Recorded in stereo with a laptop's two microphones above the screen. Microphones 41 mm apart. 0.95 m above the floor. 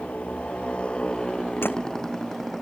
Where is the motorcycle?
35° left (ahead or behind); by 2.6 s 5° left (ahead or behind).